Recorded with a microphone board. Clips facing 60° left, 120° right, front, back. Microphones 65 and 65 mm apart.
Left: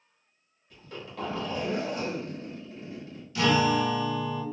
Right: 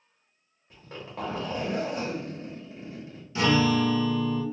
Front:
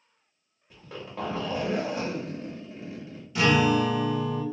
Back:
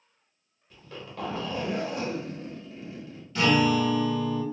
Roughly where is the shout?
No shout in this recording.